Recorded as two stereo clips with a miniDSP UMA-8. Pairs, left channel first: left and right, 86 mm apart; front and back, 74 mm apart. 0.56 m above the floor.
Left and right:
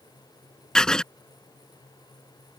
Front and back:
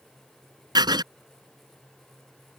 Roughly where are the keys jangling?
I don't hear keys jangling.